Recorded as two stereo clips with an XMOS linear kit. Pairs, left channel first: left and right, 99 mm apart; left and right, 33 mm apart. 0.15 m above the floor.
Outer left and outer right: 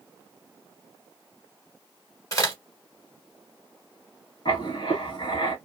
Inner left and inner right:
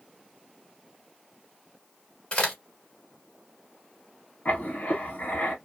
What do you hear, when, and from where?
2.3 s a crack: 30° left (ahead or behind), 1.5 m
4.5 s writing: 50° left (ahead or behind), 1.3 m